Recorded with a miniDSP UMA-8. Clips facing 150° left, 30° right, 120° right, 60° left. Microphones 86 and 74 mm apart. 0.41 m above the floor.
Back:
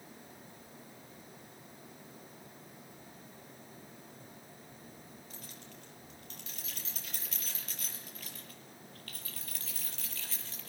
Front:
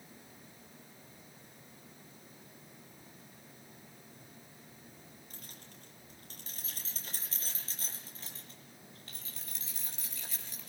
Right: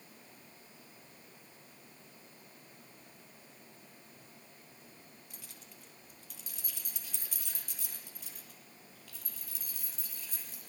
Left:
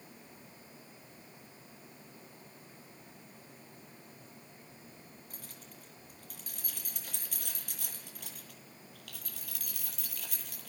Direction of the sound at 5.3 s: 15° left.